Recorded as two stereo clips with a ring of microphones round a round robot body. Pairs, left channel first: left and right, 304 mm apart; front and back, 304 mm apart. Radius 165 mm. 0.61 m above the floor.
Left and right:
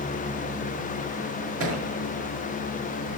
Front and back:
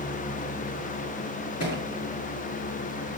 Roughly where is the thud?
Ahead right.